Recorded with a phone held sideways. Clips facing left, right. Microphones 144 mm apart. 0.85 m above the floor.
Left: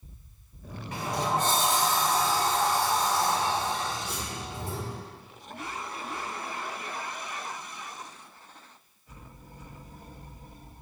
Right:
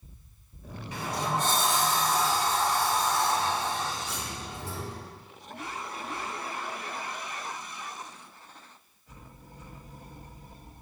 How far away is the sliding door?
About 2.5 m.